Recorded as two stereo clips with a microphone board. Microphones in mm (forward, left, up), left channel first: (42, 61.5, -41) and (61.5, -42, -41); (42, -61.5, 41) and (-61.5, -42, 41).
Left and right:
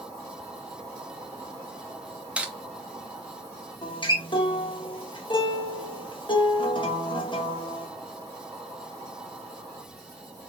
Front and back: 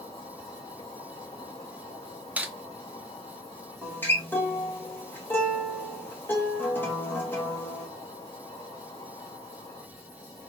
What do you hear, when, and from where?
0.0 s an insect: 35° right, 2.5 m
2.4 s cutlery clinking: 140° right, 0.7 m
3.8 s a guitar: 60° left, 1.4 m